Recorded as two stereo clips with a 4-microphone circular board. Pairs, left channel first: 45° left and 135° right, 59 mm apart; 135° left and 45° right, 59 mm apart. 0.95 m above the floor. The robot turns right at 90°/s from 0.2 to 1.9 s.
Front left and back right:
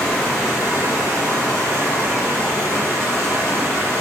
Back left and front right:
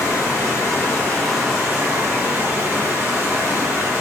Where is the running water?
120° left, 1.3 m; by 4.0 s 85° right, 1.3 m.